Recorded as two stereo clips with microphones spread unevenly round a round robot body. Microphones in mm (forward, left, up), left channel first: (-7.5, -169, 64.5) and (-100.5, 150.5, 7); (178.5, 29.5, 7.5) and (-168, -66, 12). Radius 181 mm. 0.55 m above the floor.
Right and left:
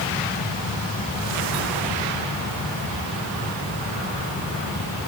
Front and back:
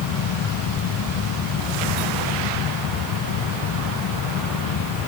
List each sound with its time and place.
Only background noise.